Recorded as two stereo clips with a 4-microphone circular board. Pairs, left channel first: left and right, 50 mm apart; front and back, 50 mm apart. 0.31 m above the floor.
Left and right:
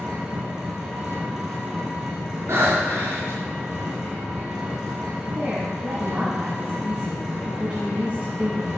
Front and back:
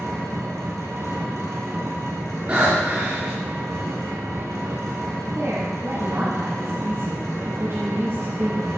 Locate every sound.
0.0 s an engine running: 170° right, 2.5 m
2.5 s breathing: 125° right, 4.5 m
5.3 s a woman speaking: 155° right, 2 m